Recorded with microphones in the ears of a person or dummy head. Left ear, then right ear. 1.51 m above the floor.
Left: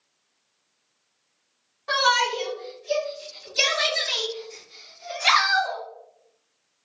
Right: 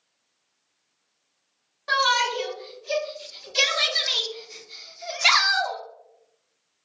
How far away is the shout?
About 2.5 m.